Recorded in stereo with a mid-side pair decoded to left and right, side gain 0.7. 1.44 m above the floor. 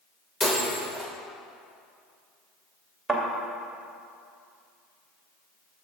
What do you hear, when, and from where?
0.4 s breaking glass: 15° left, 3 m
3.1 s a thud: 5° right, 2.5 m